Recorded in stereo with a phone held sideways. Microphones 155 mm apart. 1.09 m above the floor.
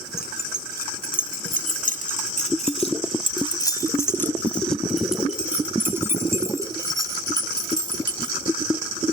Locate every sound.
0.2 s keys jangling: 80° left; by 8.3 s 30° right (ahead or behind)